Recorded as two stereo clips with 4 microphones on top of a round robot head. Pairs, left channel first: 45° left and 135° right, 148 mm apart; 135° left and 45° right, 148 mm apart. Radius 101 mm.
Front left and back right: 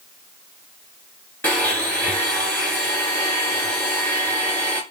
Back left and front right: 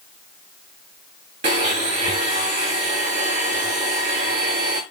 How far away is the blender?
About 1.1 m.